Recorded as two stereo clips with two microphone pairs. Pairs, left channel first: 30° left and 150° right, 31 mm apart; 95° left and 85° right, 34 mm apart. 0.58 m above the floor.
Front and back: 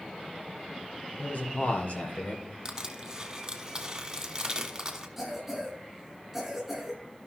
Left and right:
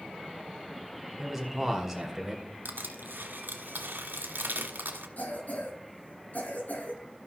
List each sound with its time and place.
1.2 s a man speaking: straight ahead, 2.5 m
2.6 s crushing: 80° right, 1.4 m
5.2 s a cough: 125° left, 6.5 m